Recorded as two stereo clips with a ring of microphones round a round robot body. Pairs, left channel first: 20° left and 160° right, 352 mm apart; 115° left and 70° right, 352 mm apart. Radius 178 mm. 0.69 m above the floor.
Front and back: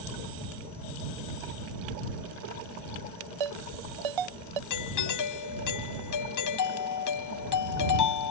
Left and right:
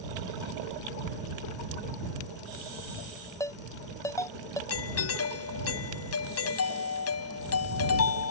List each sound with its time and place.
3.4 s a ringtone: 165° right
4.7 s a doorbell: 60° left